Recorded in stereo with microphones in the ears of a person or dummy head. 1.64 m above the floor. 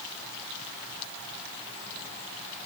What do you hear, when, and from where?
Only background noise.